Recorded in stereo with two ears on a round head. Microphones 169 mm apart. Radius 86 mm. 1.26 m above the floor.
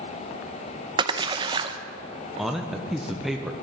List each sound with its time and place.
1.0 s a splash: 25° right (ahead or behind), 0.6 m
2.4 s a man speaking: centre (ahead or behind), 0.7 m